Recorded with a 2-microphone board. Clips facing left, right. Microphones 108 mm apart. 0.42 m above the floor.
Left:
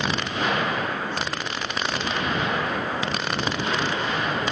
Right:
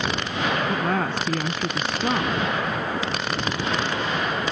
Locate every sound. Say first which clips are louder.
0.7 s a woman speaking: right 4 dB; 65° right (ahead or behind)